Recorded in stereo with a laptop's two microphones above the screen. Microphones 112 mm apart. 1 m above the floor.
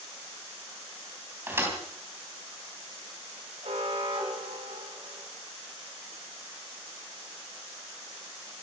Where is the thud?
20° right (ahead or behind), 3.5 m.